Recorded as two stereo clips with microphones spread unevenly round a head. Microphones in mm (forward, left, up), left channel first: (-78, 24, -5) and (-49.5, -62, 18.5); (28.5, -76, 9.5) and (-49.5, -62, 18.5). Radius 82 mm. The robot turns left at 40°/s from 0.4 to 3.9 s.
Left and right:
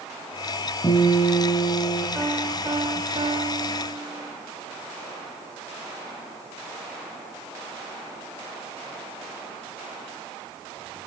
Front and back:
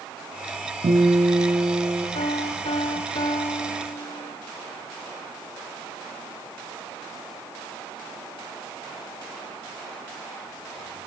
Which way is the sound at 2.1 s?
10° left.